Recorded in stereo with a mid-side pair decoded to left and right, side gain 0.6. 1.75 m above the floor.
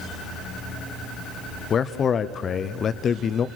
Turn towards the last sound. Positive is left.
turn(degrees=40)